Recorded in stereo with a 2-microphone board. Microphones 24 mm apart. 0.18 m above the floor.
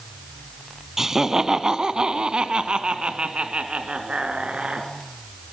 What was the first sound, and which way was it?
Laughter, 15° right (ahead or behind).